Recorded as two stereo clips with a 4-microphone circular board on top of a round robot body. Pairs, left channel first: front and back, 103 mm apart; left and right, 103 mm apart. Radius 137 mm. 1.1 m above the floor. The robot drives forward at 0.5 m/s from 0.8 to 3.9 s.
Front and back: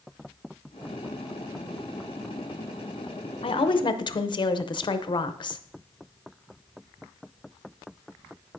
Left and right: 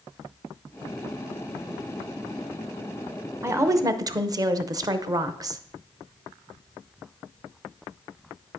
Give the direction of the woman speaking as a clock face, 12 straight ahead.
1 o'clock.